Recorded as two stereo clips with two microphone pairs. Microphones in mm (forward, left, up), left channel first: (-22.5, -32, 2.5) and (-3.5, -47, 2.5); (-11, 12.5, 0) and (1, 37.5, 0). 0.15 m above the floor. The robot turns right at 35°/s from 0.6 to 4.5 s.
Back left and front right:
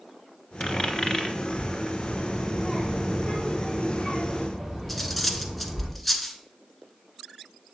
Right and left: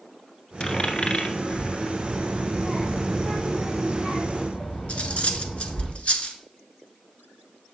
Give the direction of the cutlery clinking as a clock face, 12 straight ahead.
4 o'clock.